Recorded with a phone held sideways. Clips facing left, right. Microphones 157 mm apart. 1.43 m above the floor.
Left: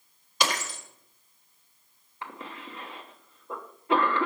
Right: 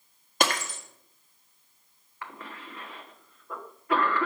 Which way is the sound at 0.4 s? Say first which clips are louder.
Right 2 dB; 55° right (ahead or behind).